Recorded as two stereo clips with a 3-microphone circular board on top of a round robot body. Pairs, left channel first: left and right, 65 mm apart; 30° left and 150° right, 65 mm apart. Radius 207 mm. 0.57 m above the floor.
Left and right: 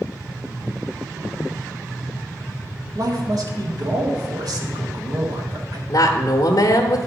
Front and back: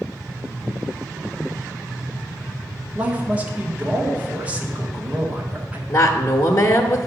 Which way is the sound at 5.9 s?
65° left.